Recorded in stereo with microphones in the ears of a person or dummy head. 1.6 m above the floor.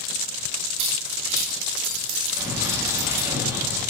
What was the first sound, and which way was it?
Keys jangling, 65° right (ahead or behind).